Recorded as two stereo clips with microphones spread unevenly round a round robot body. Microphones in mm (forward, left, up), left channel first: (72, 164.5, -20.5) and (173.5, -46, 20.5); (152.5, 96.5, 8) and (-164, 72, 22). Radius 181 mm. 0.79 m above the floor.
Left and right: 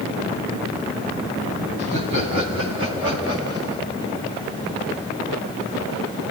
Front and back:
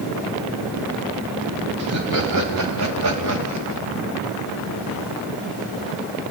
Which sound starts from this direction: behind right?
Laughter, at 1.8 s.